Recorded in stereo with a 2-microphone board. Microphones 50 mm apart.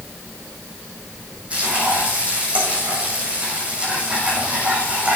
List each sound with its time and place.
1.5 s frying: 25° right (ahead or behind), 5 m